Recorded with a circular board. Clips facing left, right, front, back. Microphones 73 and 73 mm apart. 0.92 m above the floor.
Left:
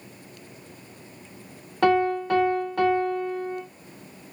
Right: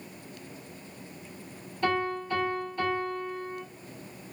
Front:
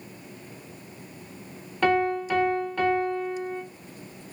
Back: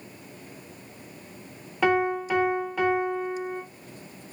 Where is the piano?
100° left, 1.3 m.